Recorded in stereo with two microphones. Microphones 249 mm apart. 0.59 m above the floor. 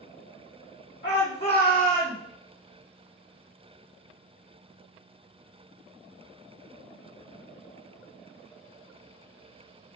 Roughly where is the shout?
Left.